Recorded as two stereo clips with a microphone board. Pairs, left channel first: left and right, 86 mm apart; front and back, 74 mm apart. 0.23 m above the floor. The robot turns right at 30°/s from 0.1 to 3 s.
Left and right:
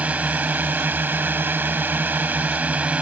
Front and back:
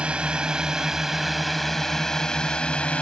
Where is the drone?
130° right; by 3.0 s 45° right.